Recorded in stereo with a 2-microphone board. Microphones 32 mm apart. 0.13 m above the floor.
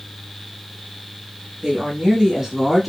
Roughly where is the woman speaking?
Right.